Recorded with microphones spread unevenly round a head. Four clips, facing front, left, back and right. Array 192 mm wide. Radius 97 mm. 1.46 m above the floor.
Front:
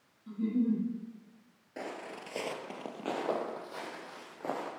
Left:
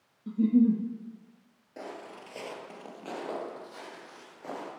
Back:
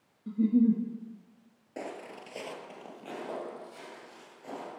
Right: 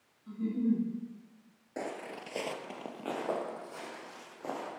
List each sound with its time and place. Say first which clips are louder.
0.3 s a giggle: left 8 dB, back 6 dB; 125° left, 1.8 m
1.8 s footsteps: right 3 dB, back 1 dB; 100° right, 1.5 m; by 4.7 s 10° right, 4.5 m